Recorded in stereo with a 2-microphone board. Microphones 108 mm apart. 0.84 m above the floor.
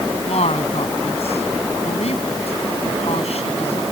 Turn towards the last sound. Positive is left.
turn(degrees=75)  # may be behind; listen again after turning